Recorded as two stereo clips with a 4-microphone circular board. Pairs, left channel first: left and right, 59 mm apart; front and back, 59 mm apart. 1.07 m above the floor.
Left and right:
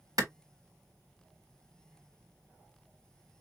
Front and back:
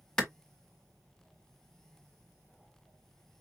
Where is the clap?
75° right, 1.4 m.